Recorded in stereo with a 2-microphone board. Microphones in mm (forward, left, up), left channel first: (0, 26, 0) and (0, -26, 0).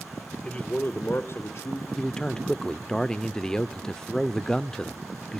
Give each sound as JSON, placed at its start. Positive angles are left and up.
{"t": 0.4, "sound": "a man speaking", "side_deg": 15, "distance_m": 1.4}
{"t": 2.0, "sound": "a man speaking", "side_deg": 15, "distance_m": 0.7}